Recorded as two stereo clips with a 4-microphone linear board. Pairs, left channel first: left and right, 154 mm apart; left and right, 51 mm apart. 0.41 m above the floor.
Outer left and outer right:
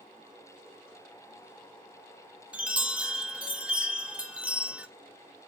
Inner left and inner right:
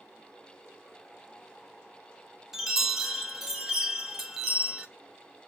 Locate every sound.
2.5 s a chime: 5° right (ahead or behind), 1.0 m